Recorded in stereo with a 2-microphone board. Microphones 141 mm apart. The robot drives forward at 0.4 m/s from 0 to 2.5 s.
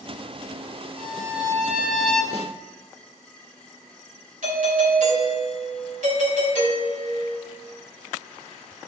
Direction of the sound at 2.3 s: 45° left (ahead or behind).